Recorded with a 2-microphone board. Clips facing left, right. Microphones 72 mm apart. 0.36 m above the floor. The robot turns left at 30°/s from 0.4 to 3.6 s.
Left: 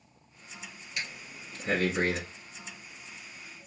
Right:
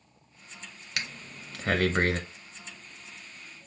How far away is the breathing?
About 0.9 m.